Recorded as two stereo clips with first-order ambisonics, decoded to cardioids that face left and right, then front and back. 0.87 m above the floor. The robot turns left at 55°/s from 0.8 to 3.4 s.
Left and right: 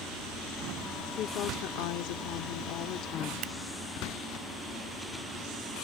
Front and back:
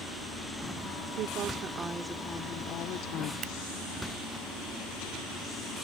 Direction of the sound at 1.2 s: 145° left.